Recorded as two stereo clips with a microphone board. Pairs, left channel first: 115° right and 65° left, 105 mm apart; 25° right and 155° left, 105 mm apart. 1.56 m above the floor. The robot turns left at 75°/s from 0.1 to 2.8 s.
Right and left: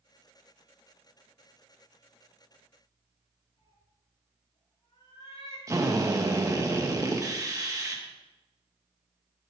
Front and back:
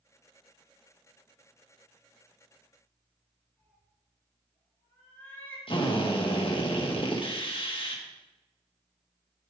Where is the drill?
10° left, 1.9 m.